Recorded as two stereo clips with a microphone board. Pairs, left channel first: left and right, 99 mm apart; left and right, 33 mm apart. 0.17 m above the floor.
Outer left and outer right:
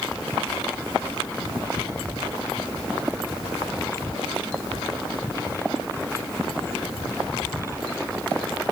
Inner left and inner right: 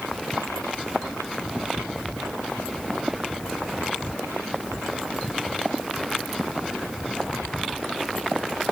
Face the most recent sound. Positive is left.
No sound to turn to.